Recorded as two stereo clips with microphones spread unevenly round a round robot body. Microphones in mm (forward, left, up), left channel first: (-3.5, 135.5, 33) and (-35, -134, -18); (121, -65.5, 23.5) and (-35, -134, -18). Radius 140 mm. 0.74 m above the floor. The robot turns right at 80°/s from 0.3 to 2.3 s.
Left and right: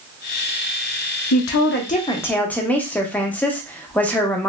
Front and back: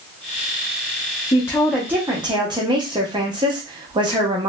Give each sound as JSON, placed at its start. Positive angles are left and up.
{"t": 1.3, "sound": "a woman speaking", "azimuth_deg": 100, "distance_m": 0.6}